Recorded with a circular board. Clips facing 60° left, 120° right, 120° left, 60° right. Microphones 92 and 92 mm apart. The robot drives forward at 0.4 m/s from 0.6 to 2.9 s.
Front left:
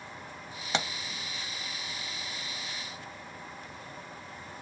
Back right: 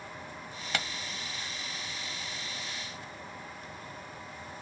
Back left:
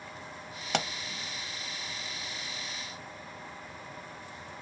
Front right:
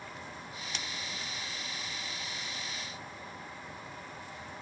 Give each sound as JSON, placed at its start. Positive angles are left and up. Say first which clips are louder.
{"t": 0.7, "sound": "a pop", "louder": "front left 4 dB, back left 14 dB", "azimuth_deg": 125}